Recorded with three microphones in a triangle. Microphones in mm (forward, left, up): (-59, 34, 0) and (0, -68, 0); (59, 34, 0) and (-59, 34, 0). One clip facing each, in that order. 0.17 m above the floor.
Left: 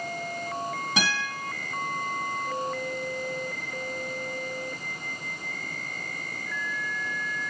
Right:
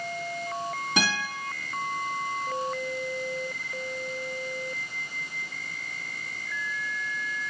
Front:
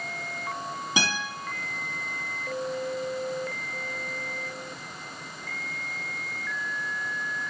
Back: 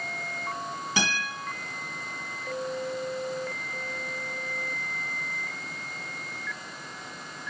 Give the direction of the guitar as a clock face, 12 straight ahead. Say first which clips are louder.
Right 2 dB, even; 11 o'clock.